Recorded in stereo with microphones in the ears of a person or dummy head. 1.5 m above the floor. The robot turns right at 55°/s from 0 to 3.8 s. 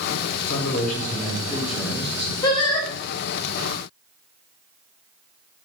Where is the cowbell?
I don't hear a cowbell.